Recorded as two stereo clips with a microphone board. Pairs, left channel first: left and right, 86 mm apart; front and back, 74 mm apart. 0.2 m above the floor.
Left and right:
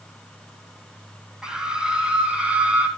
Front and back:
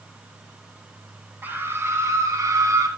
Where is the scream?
165° right, 1.6 m; by 2.9 s 160° right, 2 m.